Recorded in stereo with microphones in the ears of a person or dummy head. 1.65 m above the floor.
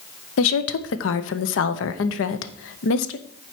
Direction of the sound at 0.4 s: 75° left (ahead or behind).